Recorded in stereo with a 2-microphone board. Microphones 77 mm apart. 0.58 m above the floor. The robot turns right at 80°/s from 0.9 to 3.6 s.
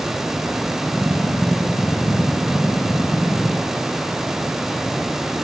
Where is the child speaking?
I don't hear a child speaking.